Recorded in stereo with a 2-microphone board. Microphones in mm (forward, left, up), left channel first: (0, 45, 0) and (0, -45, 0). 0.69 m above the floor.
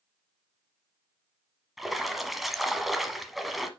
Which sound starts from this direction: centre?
A splash, at 1.8 s.